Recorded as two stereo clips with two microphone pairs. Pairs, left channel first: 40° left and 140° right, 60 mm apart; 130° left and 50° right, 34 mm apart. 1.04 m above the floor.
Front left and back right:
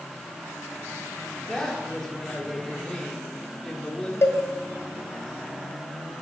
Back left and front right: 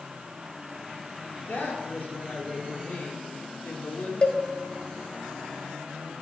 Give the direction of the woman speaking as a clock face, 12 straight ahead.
8 o'clock.